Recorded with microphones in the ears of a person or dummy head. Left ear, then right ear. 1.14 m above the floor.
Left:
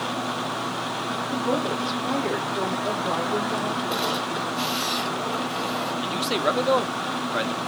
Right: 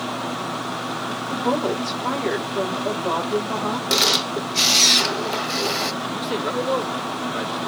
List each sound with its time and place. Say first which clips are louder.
1.3 s a woman speaking: right 4 dB; 50° right (ahead or behind), 2.5 m
3.9 s a camera shutter: right 6 dB; 70° right (ahead or behind), 0.7 m
6.0 s a man speaking: left 1 dB; 25° left (ahead or behind), 0.8 m